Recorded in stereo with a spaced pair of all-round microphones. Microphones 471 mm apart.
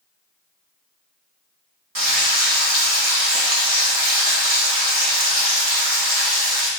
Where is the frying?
45° right (ahead or behind), 1.1 m.